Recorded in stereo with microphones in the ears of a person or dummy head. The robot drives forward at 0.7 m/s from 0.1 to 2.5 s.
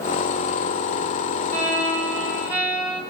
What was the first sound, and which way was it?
A violin, 5° right (ahead or behind).